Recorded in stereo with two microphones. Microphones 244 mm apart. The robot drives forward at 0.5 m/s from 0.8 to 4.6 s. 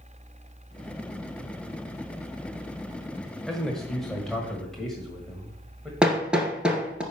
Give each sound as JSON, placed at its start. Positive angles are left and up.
{"t": 3.5, "sound": "a man speaking", "side_deg": 0, "distance_m": 1.2}
{"t": 6.0, "sound": "hammering", "side_deg": -5, "distance_m": 1.8}